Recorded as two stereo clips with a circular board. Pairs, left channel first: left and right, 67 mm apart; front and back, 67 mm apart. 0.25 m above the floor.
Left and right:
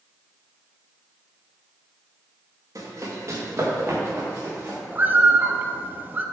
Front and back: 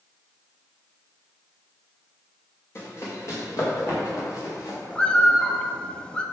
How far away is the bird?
About 1.0 m.